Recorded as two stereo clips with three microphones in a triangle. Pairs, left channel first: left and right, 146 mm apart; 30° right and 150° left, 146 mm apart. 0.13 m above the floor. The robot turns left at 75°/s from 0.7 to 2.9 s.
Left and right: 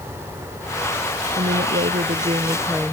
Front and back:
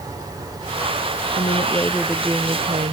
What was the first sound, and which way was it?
A woman speaking, 65° right.